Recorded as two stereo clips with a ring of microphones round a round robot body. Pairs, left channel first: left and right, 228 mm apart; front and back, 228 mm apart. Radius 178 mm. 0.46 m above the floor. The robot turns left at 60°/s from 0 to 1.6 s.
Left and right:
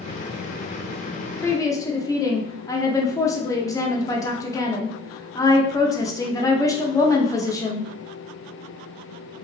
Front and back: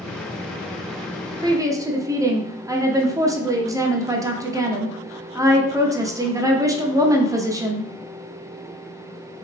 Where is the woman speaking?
145° left, 0.8 m; by 7.9 s 135° left, 0.8 m.